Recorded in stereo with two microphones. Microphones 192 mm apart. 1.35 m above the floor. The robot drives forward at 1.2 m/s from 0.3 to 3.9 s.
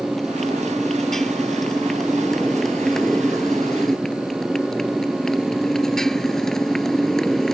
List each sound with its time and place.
0.0 s a motorcycle: centre (ahead or behind)